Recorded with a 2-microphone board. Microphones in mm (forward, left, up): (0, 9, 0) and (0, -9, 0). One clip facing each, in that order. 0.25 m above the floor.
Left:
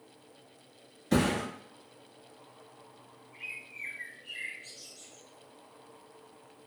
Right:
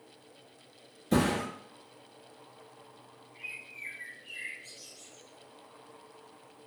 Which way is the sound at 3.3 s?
45° left (ahead or behind).